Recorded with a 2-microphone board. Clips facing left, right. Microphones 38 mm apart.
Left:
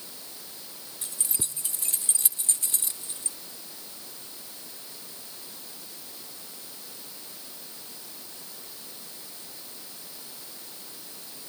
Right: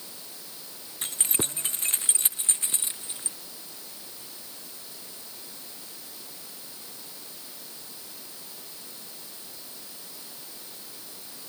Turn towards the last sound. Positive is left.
turn(degrees=-25)  # may be behind; listen again after turning